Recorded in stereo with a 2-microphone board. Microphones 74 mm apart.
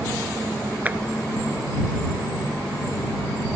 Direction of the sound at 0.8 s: 20° right (ahead or behind).